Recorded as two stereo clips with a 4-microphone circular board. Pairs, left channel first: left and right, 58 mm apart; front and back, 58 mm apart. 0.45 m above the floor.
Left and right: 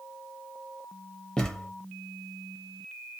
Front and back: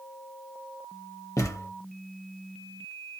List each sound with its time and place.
1.4 s a thud: 10° left, 0.6 m